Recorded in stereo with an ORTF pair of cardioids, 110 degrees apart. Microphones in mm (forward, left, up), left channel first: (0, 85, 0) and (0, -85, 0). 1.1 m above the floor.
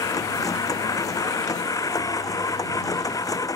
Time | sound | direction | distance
0.0 | a machine running | 20° left | ?